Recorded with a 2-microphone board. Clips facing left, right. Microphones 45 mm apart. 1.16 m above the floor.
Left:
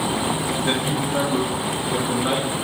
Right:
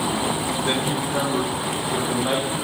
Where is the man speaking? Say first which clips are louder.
Even; 25° left (ahead or behind), 2.5 m.